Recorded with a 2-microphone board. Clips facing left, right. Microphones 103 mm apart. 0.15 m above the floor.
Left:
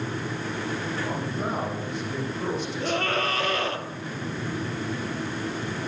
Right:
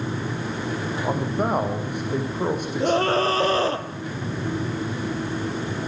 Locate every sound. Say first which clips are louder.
1.0 s a man speaking: right 5 dB; 60° right (ahead or behind), 8 m; by 3.6 s 50° right (ahead or behind), 8.5 m
2.8 s a scream: right 8 dB; 30° right (ahead or behind), 3 m